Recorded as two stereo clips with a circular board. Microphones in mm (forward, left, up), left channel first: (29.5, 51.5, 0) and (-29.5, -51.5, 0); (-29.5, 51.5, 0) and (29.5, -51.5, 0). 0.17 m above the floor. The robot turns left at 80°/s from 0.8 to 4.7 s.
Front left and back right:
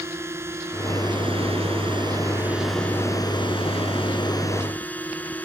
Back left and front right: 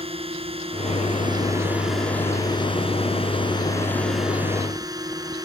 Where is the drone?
55° right; by 5.5 s 15° right.